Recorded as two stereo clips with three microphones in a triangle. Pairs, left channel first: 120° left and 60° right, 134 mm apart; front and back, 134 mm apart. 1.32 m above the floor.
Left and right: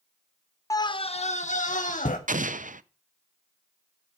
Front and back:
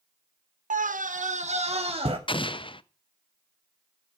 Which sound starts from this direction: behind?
A scream, at 0.7 s.